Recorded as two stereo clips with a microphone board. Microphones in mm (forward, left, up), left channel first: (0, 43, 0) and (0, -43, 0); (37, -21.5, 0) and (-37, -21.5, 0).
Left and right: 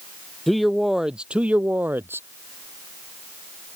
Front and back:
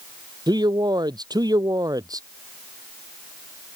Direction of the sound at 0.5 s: Straight behind.